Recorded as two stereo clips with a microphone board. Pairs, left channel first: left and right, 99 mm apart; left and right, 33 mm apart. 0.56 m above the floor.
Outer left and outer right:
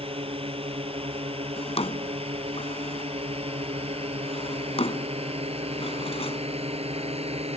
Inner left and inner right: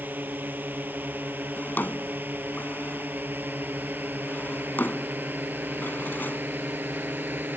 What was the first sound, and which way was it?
A drone, 65° right (ahead or behind).